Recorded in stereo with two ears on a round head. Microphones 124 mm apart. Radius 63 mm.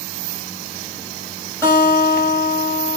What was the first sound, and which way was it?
A guitar, 20° left (ahead or behind).